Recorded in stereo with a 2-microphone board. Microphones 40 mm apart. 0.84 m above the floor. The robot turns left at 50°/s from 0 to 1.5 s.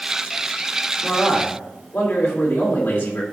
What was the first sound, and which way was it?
A man speaking, 50° left (ahead or behind).